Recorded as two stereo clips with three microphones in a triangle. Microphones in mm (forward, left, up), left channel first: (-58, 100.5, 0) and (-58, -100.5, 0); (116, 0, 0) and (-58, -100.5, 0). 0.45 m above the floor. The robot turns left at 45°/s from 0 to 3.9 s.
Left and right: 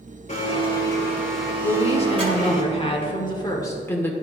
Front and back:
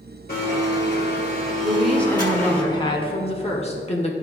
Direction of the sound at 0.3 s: 50° left.